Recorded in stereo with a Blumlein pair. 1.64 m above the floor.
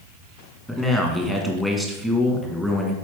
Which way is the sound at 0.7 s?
5° left.